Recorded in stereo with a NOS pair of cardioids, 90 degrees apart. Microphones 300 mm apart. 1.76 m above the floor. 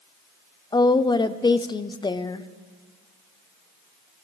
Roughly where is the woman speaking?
Ahead.